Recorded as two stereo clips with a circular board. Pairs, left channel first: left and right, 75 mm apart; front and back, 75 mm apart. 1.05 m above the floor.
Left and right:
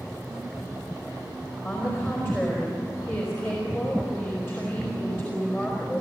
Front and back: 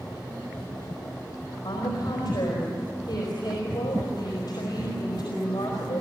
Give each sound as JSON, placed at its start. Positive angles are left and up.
{"t": 1.6, "sound": "a woman speaking", "azimuth_deg": 30, "distance_m": 4.5}